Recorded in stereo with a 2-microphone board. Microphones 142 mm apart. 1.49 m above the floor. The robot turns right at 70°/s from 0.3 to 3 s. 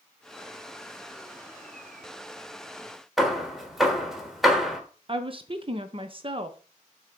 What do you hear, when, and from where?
3.2 s hammering: centre (ahead or behind), 1.4 m
5.1 s a woman speaking: 40° right (ahead or behind), 0.8 m